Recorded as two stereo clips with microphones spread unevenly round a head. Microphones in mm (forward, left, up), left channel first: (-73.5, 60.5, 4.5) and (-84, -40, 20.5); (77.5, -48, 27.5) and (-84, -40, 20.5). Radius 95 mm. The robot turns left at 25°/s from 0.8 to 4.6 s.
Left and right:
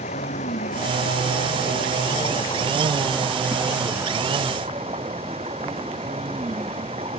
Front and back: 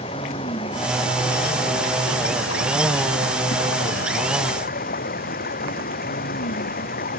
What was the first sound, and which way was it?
Running water, 60° left.